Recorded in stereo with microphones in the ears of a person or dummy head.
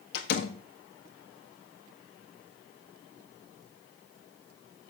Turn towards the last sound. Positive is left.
turn(degrees=60)  # may be behind; listen again after turning